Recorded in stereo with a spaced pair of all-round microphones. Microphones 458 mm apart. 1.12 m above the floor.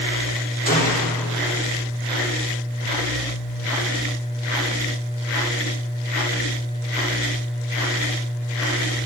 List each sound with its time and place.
0.7 s a gunshot: 20° left (ahead or behind), 3 m